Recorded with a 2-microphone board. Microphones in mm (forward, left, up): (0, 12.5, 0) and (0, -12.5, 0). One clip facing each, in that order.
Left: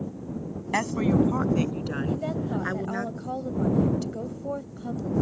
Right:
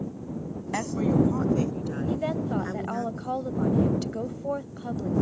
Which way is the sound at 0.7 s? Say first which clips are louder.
Left 1 dB; 30° left (ahead or behind).